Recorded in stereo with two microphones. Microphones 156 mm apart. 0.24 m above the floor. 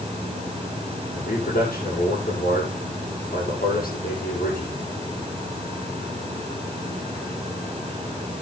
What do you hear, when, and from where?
1.1 s a man speaking: 70° left (ahead or behind), 9 m